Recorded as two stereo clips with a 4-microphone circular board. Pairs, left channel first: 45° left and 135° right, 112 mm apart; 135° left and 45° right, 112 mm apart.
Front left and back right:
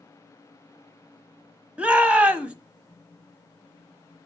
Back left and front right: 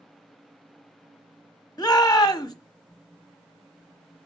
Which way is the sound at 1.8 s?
150° left.